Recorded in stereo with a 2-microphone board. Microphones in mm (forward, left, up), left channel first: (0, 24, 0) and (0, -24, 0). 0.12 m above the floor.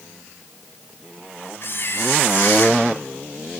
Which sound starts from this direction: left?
A camera shutter, at 1.6 s.